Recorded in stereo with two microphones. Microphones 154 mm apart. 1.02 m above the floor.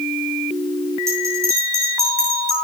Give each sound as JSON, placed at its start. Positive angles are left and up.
{"t": 1.1, "sound": "a bell", "side_deg": -20, "distance_m": 9.5}